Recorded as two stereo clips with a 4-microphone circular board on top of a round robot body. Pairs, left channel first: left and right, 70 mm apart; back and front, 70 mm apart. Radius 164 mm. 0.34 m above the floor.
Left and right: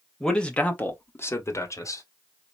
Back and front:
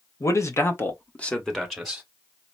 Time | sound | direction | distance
0.2 | a man speaking | 170° left | 1.8 m